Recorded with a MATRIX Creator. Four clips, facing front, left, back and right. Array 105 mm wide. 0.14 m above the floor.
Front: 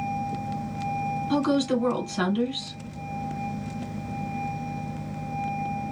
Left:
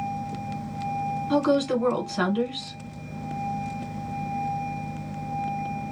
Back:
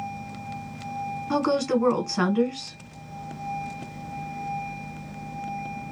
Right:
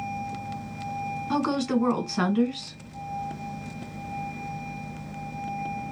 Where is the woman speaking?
160° right, 1.2 m.